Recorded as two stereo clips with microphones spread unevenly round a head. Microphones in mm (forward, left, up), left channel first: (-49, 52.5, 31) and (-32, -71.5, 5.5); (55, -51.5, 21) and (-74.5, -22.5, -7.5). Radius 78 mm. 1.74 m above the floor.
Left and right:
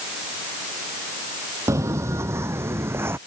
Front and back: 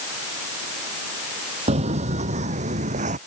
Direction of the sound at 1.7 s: 155° right.